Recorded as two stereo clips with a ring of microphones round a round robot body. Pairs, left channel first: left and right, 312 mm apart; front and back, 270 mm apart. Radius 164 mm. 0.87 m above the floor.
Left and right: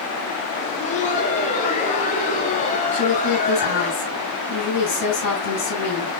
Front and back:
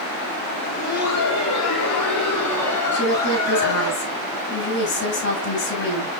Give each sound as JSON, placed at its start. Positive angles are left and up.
{"t": 0.6, "sound": "laughter", "azimuth_deg": 25, "distance_m": 2.0}
{"t": 2.9, "sound": "a woman speaking", "azimuth_deg": 45, "distance_m": 7.5}